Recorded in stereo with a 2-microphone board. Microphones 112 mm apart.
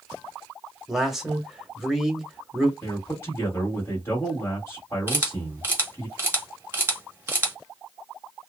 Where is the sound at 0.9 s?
5° right (ahead or behind), 0.9 m.